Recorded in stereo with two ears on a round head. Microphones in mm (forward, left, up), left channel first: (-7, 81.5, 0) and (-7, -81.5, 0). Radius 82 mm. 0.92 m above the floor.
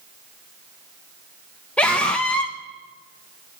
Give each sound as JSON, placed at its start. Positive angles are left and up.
{"t": 1.8, "sound": "a scream", "side_deg": 5, "distance_m": 0.8}